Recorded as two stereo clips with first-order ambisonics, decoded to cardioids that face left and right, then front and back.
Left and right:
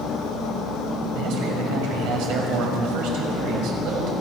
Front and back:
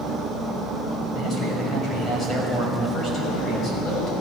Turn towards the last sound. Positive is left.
turn(degrees=-65)